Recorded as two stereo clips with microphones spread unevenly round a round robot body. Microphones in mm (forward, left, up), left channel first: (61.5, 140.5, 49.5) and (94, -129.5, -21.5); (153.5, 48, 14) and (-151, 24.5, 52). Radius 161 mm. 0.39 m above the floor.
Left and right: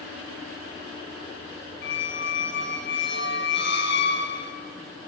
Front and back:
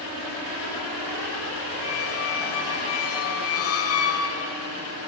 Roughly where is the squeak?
Ahead left.